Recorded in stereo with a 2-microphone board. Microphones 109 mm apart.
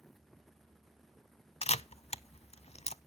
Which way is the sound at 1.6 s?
65° left (ahead or behind).